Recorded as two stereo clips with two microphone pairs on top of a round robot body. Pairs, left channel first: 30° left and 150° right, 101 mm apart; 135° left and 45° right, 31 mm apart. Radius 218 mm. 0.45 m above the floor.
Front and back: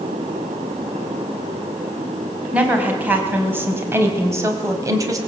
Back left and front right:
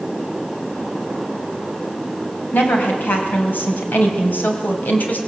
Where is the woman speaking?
135° left, 4 m; by 5.2 s 160° left, 3.5 m.